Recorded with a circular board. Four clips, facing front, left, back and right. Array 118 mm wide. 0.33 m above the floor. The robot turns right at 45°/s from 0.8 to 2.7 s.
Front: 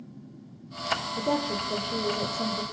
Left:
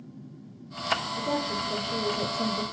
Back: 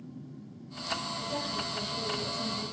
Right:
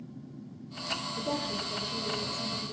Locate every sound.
1.2 s a woman speaking: straight ahead, 8 m; by 2.6 s 65° left, 8 m